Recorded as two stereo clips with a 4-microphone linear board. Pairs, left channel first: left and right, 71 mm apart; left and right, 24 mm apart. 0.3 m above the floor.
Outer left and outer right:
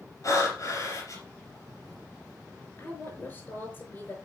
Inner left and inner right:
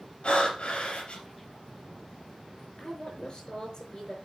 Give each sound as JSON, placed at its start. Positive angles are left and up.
{"t": 0.2, "sound": "breathing", "side_deg": 50, "distance_m": 3.5}
{"t": 2.8, "sound": "a woman speaking", "side_deg": 25, "distance_m": 5.0}